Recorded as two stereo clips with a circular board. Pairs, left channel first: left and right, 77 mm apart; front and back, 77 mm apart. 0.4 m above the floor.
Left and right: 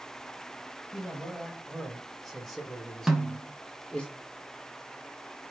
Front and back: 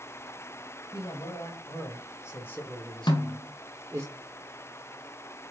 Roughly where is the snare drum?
Ahead.